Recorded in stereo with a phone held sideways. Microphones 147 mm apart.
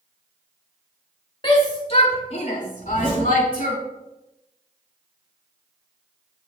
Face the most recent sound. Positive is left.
turn(degrees=40)  # may be behind; listen again after turning